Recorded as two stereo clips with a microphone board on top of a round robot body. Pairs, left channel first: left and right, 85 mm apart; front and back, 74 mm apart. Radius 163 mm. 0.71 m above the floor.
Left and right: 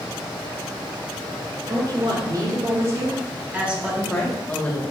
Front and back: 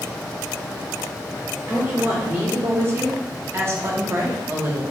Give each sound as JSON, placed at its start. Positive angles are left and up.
{"t": 1.7, "sound": "a woman speaking", "azimuth_deg": -120, "distance_m": 2.0}